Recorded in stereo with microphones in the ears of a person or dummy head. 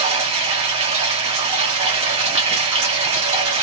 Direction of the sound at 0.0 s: 30° right (ahead or behind).